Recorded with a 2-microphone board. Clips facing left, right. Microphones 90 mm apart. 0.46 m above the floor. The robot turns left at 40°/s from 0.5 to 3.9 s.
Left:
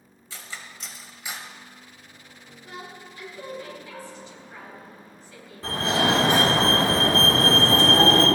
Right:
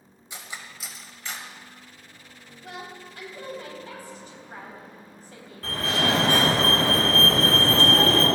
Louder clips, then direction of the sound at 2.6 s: Right 1 dB; 70° right (ahead or behind).